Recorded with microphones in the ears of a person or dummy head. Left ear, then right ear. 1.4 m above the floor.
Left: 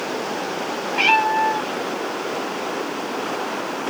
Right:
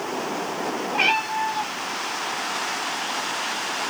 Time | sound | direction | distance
0.9 | a cat meowing | 20° left (ahead or behind) | 2 m